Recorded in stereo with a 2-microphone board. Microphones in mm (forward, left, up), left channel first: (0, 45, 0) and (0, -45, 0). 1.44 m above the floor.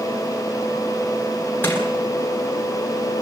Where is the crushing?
20° left (ahead or behind), 9.5 m.